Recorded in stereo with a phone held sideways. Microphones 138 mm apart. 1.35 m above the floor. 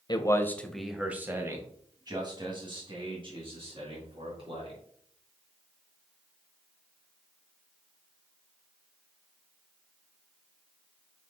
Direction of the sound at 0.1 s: 35° left (ahead or behind).